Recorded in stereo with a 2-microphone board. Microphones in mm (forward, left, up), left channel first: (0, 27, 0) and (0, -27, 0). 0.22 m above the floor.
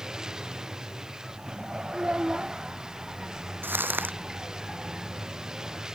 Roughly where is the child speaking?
Right.